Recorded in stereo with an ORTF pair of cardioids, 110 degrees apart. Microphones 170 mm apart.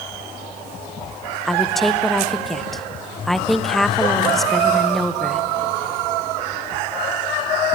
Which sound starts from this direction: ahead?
A woman speaking, at 1.4 s.